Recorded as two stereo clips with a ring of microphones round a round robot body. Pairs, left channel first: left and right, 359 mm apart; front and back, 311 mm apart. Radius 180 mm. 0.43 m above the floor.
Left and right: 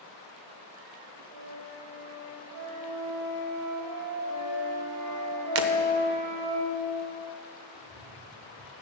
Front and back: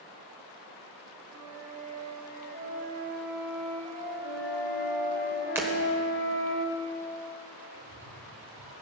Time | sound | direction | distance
1.3 | a flute | 110° right | 2.5 m
4.2 | a flute | 65° right | 2.5 m
5.5 | breaking glass | 100° right | 1.0 m
7.7 | a cat meowing | 175° right | 3.5 m